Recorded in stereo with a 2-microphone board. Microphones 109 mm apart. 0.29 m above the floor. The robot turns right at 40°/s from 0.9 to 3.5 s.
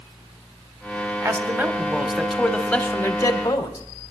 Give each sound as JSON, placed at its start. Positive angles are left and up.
{"t": 1.2, "sound": "a man speaking", "azimuth_deg": -40, "distance_m": 1.5}